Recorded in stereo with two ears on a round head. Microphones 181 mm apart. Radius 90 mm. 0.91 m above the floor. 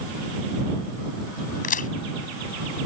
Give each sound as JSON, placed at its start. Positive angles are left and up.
{"t": 1.6, "sound": "a crack", "side_deg": 45}